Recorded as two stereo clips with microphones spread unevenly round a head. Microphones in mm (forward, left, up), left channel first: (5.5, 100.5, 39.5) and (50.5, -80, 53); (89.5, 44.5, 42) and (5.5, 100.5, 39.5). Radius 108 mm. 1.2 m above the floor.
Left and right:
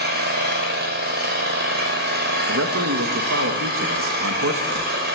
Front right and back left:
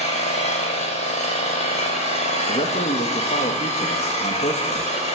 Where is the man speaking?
70° right, 2 m.